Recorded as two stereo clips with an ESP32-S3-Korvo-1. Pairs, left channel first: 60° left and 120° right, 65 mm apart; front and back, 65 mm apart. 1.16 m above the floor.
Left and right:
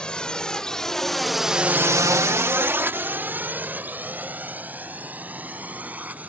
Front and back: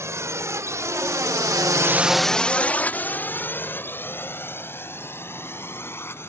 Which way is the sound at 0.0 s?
135° left.